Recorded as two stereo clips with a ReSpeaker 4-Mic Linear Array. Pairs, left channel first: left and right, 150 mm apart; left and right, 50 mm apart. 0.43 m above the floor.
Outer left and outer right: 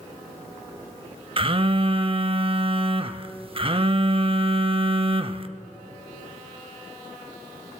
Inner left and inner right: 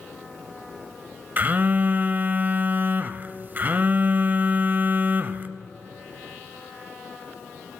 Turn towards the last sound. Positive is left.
turn(degrees=-40)  # may be behind; listen again after turning